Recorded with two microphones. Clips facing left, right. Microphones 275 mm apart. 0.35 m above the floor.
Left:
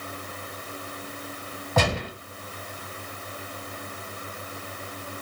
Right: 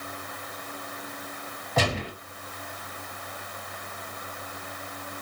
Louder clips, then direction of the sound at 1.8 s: Left 2 dB; 75° left (ahead or behind).